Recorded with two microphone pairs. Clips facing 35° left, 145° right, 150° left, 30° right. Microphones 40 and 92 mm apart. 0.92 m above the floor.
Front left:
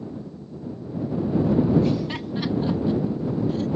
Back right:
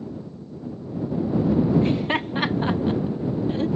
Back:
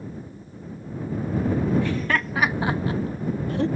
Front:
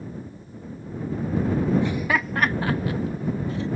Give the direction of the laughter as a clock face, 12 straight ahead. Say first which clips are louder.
Back right 2 dB, front 1 dB; 3 o'clock.